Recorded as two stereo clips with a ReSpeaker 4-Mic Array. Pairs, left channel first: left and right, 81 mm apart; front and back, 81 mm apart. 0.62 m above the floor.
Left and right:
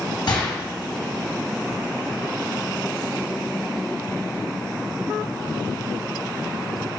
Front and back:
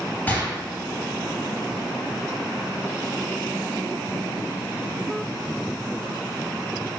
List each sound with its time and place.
0.3 s a gunshot: 70° left, 3 m